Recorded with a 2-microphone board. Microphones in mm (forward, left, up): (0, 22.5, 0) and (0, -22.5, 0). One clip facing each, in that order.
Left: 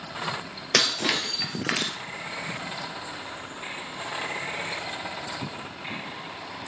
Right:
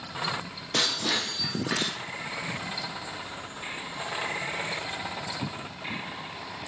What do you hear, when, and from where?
0.7 s breaking glass: 85° left, 2.5 m